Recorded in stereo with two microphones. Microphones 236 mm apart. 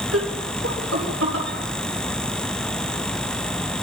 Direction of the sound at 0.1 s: 70° right (ahead or behind).